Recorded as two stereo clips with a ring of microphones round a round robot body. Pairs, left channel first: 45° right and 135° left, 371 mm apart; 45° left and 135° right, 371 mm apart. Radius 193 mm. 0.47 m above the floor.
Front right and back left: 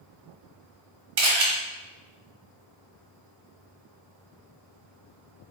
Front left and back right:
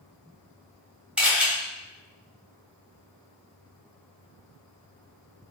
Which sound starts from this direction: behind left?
A camera shutter, at 1.2 s.